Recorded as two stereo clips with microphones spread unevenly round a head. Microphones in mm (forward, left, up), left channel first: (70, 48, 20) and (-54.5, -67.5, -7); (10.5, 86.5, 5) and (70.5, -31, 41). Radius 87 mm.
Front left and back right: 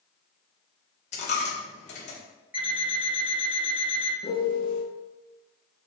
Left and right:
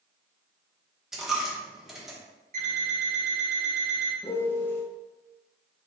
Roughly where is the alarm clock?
Ahead right.